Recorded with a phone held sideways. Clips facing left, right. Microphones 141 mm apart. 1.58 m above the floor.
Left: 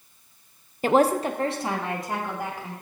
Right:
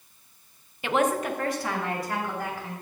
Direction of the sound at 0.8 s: 40° left (ahead or behind).